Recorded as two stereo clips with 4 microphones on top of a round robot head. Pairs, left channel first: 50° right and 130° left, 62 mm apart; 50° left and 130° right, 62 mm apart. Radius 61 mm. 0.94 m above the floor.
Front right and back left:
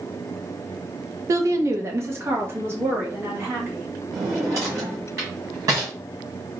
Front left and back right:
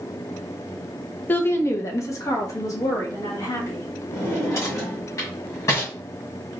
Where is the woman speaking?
105° left, 0.6 m; by 3.9 s 70° left, 2 m.